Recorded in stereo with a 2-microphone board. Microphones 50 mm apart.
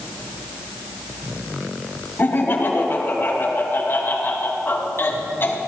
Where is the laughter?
45° left (ahead or behind), 3.5 m.